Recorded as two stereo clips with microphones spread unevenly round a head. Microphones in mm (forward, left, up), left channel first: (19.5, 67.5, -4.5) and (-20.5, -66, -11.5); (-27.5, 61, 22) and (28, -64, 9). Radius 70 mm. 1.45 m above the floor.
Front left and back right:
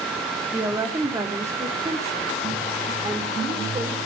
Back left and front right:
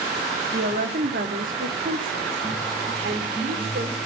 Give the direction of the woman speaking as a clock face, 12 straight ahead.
1 o'clock.